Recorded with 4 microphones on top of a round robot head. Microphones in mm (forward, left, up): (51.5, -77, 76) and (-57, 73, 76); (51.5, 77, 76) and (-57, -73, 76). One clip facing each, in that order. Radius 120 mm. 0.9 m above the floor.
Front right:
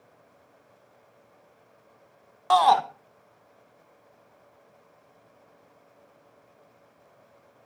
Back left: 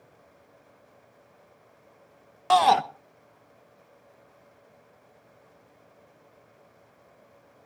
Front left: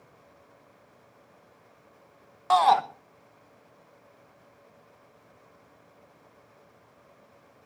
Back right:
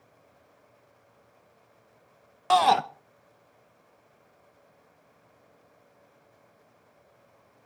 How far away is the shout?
About 1.0 m.